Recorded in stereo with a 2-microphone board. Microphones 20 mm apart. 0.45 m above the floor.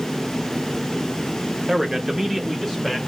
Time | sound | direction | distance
1.7 | a man speaking | 15° right (ahead or behind) | 1.1 m